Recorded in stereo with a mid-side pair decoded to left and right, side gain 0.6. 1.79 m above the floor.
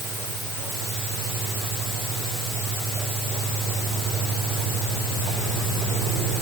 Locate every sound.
Only background noise.